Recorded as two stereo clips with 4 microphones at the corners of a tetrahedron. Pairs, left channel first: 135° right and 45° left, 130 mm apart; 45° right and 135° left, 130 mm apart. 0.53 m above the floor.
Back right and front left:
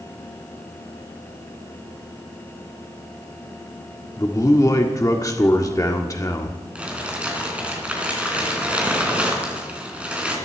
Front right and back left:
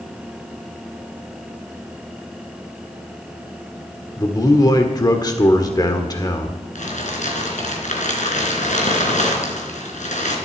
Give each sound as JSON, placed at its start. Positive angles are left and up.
{"t": 4.2, "sound": "a man speaking", "azimuth_deg": -85, "distance_m": 1.7}
{"t": 6.8, "sound": "crumpling", "azimuth_deg": -35, "distance_m": 3.5}